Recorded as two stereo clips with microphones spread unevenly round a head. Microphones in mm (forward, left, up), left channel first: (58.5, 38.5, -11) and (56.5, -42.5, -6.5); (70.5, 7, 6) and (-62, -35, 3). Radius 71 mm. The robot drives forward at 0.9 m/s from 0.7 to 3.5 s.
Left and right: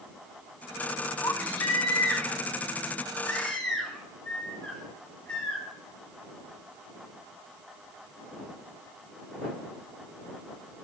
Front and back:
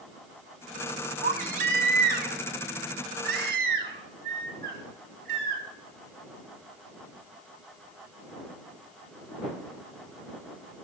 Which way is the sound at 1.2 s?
155° left.